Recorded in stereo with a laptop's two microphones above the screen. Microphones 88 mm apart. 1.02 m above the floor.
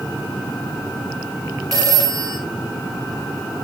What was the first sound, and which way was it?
A phone ringing, 45° right (ahead or behind).